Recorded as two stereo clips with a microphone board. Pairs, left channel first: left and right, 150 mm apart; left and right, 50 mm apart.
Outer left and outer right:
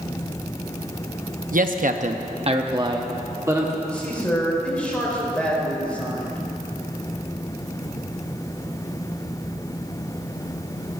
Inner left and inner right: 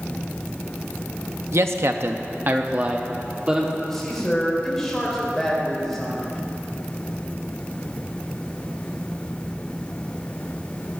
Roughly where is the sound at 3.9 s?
Centre.